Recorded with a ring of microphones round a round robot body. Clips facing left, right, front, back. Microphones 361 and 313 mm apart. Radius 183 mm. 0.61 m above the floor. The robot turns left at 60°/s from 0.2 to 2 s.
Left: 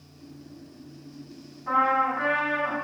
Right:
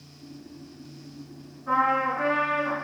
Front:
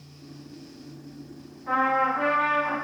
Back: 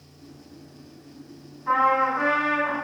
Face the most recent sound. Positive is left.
turn(degrees=85)